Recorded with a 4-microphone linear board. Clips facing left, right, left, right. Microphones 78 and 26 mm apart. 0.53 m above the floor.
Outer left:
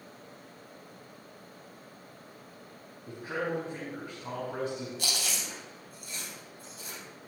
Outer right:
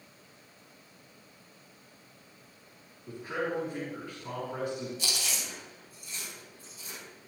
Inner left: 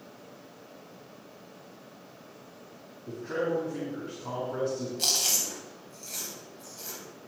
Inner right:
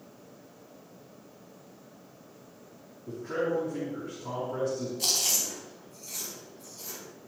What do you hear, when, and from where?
3.1 s a man speaking: 35° left (ahead or behind), 4 m
5.0 s chewing: 65° left (ahead or behind), 3.5 m